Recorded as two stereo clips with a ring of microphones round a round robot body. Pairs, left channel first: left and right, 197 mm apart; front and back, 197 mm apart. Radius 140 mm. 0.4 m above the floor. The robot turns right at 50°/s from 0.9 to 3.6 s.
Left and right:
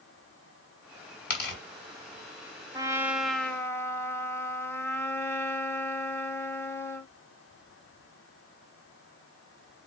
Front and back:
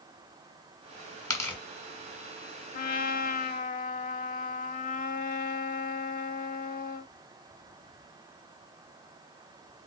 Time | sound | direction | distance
1.3 | tearing paper | 70° left | 2.5 m
2.7 | a trumpet | 25° right | 0.8 m